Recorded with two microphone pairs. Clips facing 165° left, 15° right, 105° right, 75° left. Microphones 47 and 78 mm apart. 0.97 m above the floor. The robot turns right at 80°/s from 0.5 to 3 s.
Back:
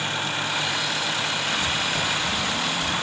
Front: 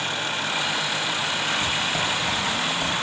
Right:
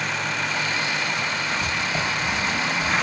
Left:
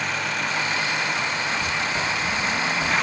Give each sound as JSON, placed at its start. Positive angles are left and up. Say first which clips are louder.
{"t": 1.6, "sound": "writing", "louder": "even, even", "azimuth_deg": -80, "distance_m": 2.5}